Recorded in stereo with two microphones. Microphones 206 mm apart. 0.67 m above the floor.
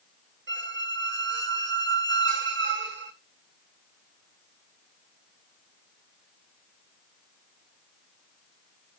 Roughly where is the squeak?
Right.